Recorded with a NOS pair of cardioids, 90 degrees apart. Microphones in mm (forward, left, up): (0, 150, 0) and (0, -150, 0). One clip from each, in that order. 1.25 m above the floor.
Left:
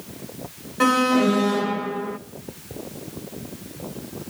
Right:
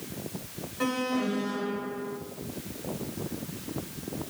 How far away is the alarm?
About 1.7 m.